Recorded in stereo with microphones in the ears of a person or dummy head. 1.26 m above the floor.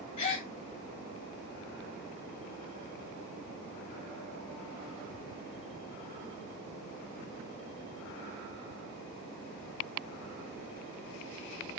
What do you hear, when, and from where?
0.2 s a gasp: 30° left (ahead or behind), 1.6 m